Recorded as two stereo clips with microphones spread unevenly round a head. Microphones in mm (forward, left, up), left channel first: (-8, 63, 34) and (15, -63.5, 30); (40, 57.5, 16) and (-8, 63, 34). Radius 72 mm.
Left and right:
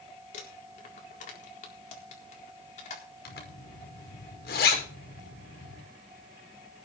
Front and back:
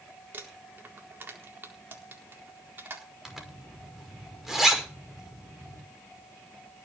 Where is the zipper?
95° left, 5.5 m.